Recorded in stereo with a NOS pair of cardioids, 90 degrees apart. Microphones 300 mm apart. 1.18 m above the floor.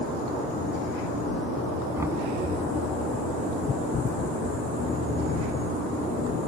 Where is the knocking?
10° right.